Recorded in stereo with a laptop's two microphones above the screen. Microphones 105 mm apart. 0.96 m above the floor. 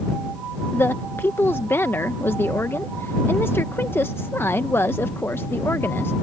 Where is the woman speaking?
20° left (ahead or behind).